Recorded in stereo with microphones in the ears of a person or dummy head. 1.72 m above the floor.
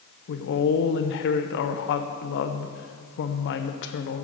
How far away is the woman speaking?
About 0.8 m.